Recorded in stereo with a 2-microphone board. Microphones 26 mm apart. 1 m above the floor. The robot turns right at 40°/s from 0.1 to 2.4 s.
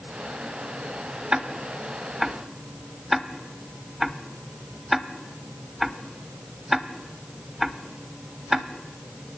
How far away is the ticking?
About 1.0 m.